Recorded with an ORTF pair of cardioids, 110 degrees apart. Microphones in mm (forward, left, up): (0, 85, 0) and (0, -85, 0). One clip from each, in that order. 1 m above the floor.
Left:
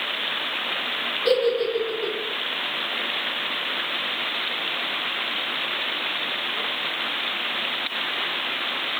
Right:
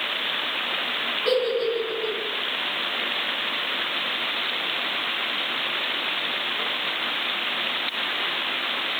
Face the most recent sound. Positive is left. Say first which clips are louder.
# left 3 dB
turn(degrees=55)